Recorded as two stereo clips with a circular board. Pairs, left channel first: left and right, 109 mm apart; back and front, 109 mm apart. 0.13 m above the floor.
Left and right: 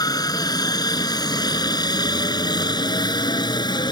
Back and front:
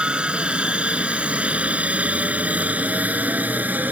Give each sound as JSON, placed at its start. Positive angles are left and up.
{"t": 0.0, "sound": "a helicopter", "azimuth_deg": 75}